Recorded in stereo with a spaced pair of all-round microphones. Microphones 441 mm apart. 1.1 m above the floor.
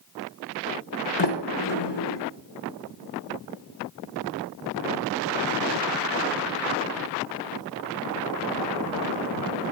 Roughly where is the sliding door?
Left.